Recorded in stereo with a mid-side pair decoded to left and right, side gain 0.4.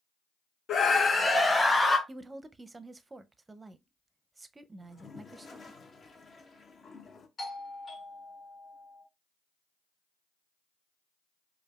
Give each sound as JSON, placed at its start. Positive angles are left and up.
{"t": 0.7, "sound": "a scream", "azimuth_deg": 60, "distance_m": 1.0}
{"t": 2.1, "sound": "a woman speaking", "azimuth_deg": -25, "distance_m": 0.5}
{"t": 4.8, "sound": "a toilet flushing", "azimuth_deg": 45, "distance_m": 0.7}
{"t": 7.4, "sound": "a doorbell", "azimuth_deg": 40, "distance_m": 1.6}